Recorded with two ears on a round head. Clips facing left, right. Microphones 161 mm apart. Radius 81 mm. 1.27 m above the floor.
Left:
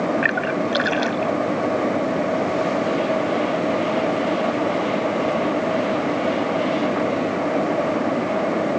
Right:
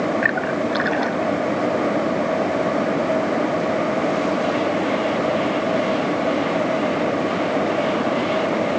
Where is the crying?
No crying in this recording.